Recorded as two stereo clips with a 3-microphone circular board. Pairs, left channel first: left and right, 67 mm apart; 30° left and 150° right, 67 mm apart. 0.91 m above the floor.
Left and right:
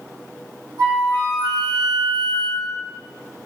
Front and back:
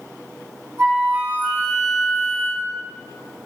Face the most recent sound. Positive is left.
turn(degrees=-95)